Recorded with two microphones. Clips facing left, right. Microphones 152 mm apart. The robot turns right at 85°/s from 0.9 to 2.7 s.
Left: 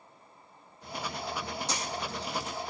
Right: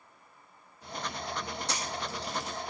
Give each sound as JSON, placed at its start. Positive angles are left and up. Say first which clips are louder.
{"t": 1.7, "sound": "a camera shutter", "louder": "left 1 dB", "side_deg": -65, "distance_m": 3.0}